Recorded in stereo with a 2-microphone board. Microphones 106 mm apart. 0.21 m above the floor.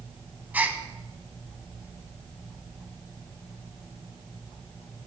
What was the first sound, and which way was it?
A gasp, 15° right (ahead or behind).